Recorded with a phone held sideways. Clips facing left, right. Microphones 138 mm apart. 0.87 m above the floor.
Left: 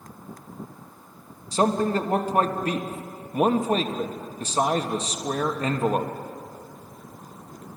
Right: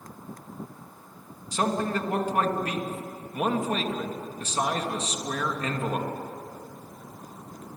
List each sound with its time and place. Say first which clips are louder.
1.5 s a man speaking: left 5 dB; 35° left (ahead or behind), 1.4 m